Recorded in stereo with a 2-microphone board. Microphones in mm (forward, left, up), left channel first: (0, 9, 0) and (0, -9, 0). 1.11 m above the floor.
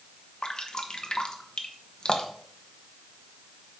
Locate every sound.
0.4 s dripping: 50° left (ahead or behind), 1.0 m